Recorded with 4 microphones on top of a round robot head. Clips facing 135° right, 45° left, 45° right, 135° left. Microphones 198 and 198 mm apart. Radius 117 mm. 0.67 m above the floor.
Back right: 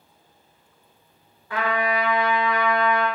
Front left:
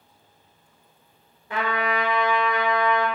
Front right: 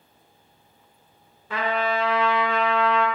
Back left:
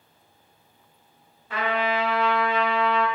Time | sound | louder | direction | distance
1.5 | a trumpet | back right 1 dB, front right 1 dB | 25° right | 1.1 m